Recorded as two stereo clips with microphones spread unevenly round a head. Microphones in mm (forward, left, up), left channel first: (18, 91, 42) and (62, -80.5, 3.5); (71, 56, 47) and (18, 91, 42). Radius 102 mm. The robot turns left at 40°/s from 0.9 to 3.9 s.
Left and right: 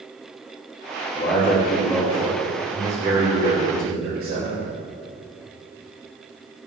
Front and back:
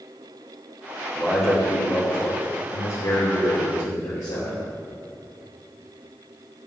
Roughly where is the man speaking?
Ahead left.